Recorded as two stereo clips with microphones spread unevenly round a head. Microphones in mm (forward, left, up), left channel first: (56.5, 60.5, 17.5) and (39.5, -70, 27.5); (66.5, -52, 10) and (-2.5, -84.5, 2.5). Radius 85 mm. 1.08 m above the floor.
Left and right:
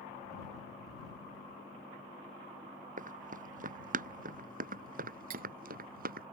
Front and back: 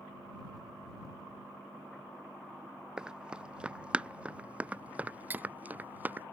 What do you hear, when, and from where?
3.0 s running footsteps: 75° right; by 6.3 s 85° right
5.3 s cutlery clinking: 90° right